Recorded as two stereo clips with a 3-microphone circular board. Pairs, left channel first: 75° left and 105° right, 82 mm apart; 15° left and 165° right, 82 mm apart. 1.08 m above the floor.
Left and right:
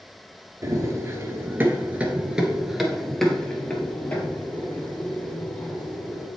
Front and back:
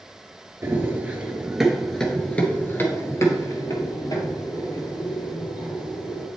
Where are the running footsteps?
120° right, 1.3 m; by 6.3 s 15° left, 2.5 m.